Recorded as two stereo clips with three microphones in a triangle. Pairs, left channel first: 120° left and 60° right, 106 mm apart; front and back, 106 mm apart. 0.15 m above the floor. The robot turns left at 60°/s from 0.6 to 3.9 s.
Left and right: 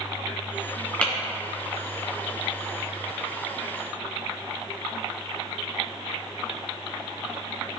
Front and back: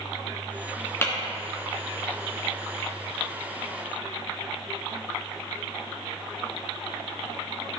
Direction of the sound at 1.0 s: 50° left.